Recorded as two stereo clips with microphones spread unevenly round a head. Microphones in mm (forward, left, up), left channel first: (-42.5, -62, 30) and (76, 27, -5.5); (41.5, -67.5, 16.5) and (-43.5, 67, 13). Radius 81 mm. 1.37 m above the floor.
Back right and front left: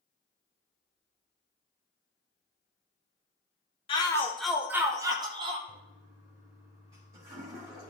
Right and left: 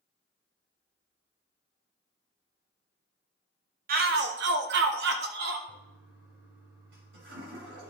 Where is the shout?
155° left, 0.7 m; by 5.6 s 95° left, 1.5 m.